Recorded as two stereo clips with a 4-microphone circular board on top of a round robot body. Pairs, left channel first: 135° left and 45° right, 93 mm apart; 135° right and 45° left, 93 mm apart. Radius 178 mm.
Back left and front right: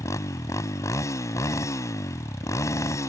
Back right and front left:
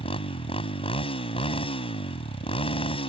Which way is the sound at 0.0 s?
165° right.